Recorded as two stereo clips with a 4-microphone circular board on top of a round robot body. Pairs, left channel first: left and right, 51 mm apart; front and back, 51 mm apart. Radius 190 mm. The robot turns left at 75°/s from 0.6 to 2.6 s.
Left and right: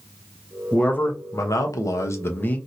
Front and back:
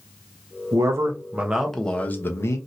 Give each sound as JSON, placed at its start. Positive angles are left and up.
{"t": 0.7, "sound": "a man speaking", "azimuth_deg": 165, "distance_m": 0.8}